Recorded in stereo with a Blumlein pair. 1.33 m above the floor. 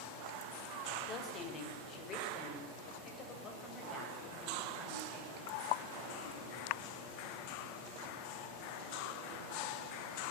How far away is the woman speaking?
About 4.5 m.